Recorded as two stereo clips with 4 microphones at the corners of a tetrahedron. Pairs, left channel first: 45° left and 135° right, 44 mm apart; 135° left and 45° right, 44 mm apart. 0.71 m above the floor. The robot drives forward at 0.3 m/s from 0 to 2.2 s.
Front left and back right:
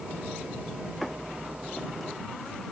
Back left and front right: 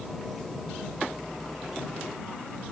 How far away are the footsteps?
I don't hear footsteps.